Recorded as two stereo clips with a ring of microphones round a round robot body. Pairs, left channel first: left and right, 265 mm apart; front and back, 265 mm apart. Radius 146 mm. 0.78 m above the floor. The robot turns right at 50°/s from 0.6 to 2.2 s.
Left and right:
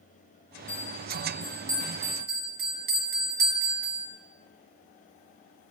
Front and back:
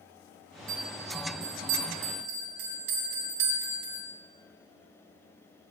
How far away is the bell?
About 4.5 m.